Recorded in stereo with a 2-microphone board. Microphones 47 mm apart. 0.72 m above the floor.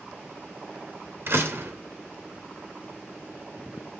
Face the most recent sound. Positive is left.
turn(degrees=-55)  # may be behind; listen again after turning